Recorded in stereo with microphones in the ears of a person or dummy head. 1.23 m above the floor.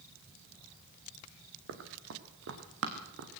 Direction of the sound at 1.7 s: 65° right (ahead or behind).